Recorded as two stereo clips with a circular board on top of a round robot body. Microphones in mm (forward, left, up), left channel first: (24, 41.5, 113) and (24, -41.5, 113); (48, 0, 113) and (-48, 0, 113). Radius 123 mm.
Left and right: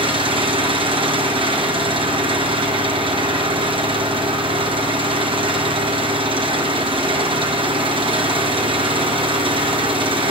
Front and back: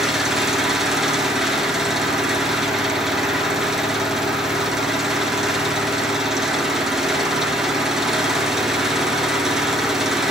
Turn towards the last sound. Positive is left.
turn(degrees=-95)